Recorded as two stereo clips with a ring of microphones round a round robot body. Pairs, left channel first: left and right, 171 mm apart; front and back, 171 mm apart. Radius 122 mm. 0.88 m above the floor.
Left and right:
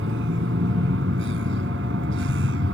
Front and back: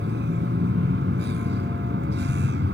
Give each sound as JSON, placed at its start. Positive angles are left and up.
{"t": 0.0, "sound": "a vehicle", "azimuth_deg": -130}